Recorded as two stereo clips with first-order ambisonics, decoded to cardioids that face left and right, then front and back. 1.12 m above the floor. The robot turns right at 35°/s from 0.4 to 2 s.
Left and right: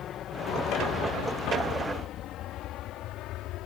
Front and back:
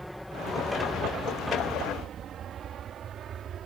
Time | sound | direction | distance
0.0 | an aircraft | 90° left | ?